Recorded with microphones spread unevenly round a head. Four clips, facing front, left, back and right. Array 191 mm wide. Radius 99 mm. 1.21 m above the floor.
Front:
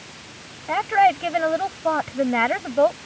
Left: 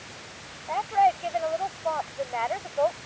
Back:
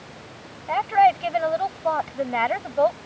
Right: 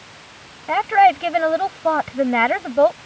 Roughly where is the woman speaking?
Ahead right.